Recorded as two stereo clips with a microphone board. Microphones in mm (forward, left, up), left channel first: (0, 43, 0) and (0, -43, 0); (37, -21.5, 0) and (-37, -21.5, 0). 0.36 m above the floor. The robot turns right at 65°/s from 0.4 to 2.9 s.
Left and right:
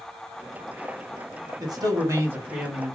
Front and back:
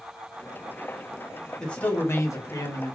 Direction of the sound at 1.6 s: 80° right.